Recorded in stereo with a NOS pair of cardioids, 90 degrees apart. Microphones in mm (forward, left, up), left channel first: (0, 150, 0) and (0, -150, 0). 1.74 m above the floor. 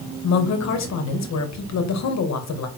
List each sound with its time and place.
0.2 s a woman speaking: 60° left, 2 m